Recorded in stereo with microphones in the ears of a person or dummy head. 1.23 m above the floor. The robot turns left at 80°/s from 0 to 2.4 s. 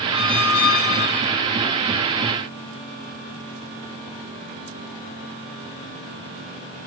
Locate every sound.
0.1 s a squeak: 120° left, 1.1 m; by 1.4 s 15° left, 1.1 m